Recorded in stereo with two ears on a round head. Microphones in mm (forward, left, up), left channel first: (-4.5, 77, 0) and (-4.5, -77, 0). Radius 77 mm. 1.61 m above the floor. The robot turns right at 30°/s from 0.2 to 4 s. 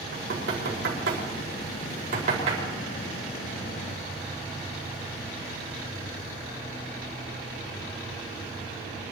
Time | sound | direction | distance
0.1 | knocking | 70° right (ahead or behind) | 4.5 m